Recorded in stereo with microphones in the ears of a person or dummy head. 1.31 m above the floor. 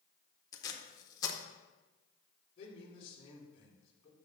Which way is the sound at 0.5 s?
20° left (ahead or behind).